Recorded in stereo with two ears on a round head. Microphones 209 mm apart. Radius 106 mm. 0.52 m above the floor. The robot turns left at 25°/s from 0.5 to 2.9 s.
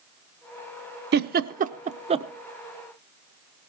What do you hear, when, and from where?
1.1 s a giggle: 45° right (ahead or behind), 0.6 m; by 2.3 s 25° right (ahead or behind), 0.6 m